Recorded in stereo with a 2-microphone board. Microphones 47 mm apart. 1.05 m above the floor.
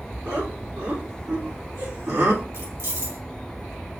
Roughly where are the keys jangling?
Right.